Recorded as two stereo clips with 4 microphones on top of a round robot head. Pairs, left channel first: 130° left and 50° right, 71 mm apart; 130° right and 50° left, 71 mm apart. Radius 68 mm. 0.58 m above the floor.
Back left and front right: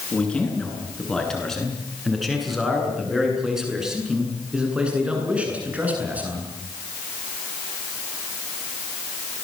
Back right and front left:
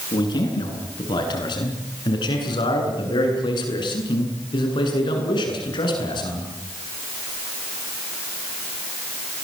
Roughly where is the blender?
I don't hear a blender.